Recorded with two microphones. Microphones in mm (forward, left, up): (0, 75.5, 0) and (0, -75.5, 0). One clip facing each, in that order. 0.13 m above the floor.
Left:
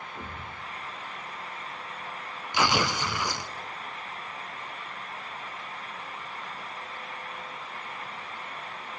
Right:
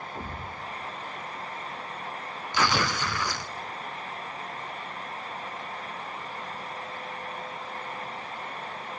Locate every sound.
0.1 s a thud: 25° right (ahead or behind), 6.5 m
2.5 s tearing paper: 15° left (ahead or behind), 0.9 m